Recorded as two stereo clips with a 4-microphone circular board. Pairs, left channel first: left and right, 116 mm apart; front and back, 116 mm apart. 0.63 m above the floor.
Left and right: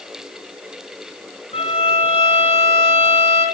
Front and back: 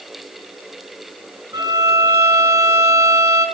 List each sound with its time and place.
1.5 s a violin: 115° left, 4.5 m